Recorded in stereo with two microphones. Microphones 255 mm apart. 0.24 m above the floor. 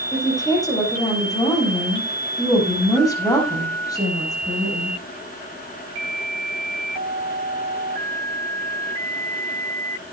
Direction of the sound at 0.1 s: 15° left (ahead or behind).